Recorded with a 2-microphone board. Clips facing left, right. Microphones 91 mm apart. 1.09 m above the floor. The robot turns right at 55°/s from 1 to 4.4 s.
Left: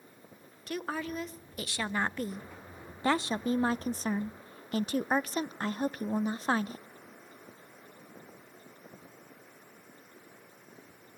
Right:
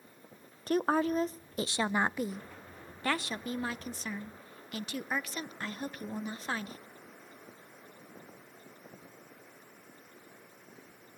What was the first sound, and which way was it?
A woman speaking, 80° right.